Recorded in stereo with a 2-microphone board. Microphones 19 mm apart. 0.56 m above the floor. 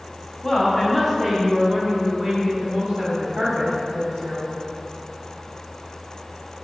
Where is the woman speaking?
10° left (ahead or behind), 1.0 m; by 4.5 s 70° right (ahead or behind), 2.0 m.